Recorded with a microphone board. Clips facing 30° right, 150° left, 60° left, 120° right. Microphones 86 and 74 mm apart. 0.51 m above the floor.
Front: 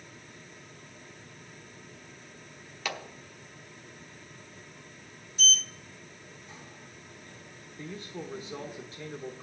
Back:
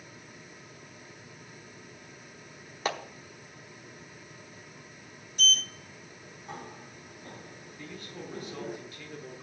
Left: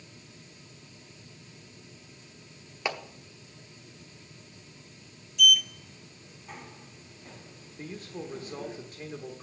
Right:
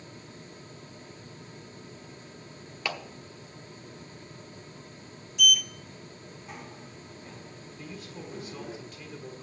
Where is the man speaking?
25° left, 1.2 m.